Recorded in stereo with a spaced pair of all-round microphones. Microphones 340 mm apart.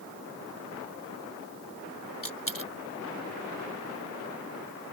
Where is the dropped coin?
75° left (ahead or behind).